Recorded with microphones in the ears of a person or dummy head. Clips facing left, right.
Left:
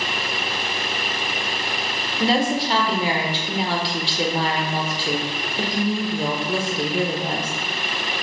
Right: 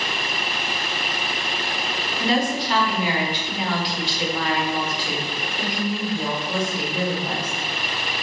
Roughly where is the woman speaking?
Left.